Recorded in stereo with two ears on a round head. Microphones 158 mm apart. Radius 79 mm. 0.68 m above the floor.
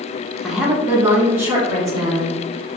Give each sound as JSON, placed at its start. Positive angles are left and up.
{"t": 0.4, "sound": "a woman speaking", "side_deg": 0, "distance_m": 0.8}